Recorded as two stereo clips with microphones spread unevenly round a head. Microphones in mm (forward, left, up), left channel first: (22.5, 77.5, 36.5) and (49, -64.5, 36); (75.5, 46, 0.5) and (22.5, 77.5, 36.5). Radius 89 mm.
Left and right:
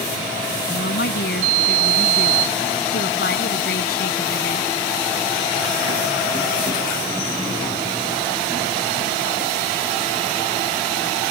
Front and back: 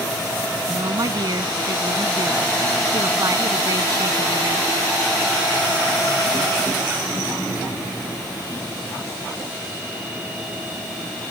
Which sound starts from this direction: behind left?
A woman speaking, at 0.7 s.